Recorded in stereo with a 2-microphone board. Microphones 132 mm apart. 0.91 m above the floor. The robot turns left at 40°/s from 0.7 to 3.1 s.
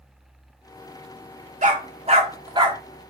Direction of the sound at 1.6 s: 65° right (ahead or behind).